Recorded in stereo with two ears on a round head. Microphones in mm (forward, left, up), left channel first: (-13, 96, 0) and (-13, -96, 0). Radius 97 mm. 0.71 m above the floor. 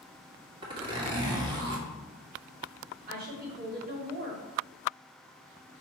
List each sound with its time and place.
0.6 s a zipper: 25° right (ahead or behind), 2 m
3.1 s a woman speaking: 45° right (ahead or behind), 2.5 m